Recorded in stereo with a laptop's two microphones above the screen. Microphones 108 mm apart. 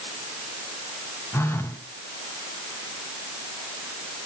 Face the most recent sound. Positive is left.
turn(degrees=25)  # may be behind; listen again after turning